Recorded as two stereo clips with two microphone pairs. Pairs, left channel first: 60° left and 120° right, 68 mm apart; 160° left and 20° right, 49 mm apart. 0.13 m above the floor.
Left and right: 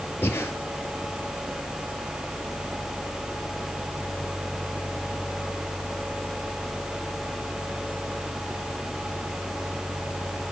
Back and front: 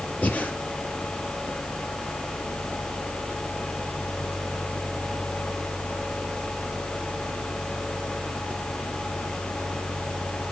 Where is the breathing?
105° left, 1.7 m.